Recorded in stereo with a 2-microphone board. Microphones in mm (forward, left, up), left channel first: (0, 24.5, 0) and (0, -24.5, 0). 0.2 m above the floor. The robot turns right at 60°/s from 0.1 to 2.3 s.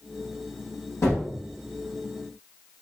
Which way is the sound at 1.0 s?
70° left (ahead or behind).